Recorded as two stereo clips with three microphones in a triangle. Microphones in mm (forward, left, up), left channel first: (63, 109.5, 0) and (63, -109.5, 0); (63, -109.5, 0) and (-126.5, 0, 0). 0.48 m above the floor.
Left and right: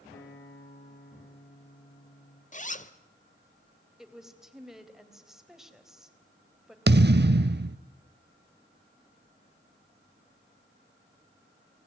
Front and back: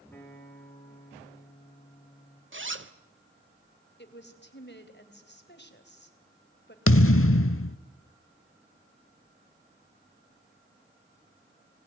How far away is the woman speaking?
About 3 m.